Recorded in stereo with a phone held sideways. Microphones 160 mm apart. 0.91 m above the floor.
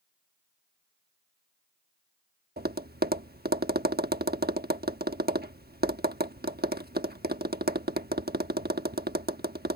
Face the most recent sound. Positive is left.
turn(degrees=-75)  # may be behind; listen again after turning